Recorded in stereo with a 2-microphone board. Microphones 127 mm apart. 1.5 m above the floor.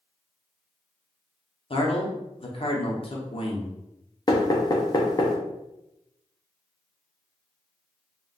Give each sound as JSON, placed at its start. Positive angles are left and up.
{"t": 1.7, "sound": "a man speaking", "side_deg": 45, "distance_m": 0.8}
{"t": 4.3, "sound": "knocking", "side_deg": 30, "distance_m": 0.5}